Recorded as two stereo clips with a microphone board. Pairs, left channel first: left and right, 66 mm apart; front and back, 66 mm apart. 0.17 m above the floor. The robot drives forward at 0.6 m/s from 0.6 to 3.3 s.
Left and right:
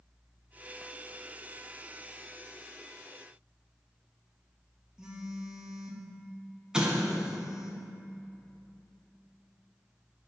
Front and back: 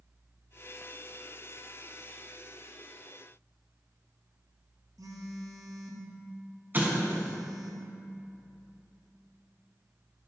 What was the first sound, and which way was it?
A phone buzzing, 170° right.